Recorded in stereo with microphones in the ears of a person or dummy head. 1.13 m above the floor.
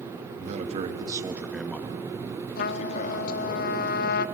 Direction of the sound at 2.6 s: 55° left (ahead or behind).